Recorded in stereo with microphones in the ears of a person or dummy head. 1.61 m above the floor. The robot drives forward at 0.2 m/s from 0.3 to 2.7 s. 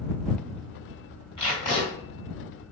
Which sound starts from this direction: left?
Tape being pulled, at 1.4 s.